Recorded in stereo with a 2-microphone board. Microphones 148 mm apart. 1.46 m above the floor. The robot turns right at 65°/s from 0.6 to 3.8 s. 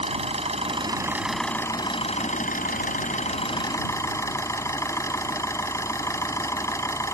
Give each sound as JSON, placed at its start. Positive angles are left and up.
{"t": 0.0, "sound": "an engine running", "azimuth_deg": -50}